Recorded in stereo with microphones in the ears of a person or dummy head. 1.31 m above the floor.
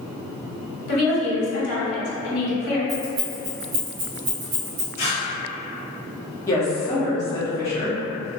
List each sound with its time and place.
0.9 s a woman speaking: 70° left (ahead or behind), 1.5 m
2.9 s keys jangling: 40° right (ahead or behind), 1.1 m
5.0 s tearing paper: 45° left (ahead or behind), 1.1 m
6.5 s a woman speaking: 15° left (ahead or behind), 0.8 m